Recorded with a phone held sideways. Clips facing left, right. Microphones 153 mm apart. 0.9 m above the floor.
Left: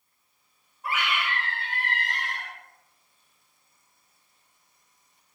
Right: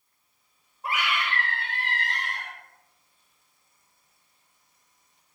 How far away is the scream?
About 0.9 m.